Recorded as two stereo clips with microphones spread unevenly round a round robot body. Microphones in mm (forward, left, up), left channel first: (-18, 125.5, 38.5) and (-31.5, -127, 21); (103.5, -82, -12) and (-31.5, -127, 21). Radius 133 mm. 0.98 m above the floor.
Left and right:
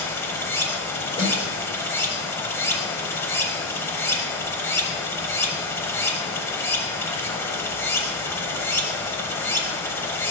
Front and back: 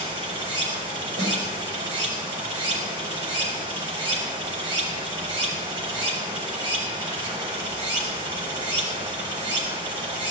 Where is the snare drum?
155° left, 4 m.